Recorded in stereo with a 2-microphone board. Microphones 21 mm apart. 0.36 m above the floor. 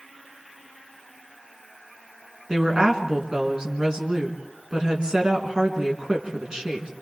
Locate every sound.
2.5 s a woman speaking: 35° right (ahead or behind), 4 m